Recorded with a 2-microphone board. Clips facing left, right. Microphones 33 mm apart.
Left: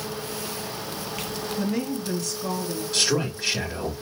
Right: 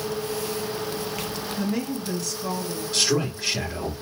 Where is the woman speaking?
Centre (ahead or behind), 2 m.